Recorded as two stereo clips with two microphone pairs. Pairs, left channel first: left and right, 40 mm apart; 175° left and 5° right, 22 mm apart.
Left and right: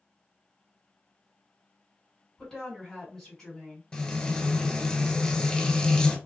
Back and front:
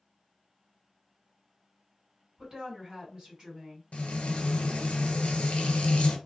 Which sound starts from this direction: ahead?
A woman speaking, at 2.4 s.